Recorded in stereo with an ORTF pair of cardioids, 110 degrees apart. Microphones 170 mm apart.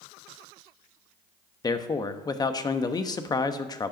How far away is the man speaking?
About 1.0 m.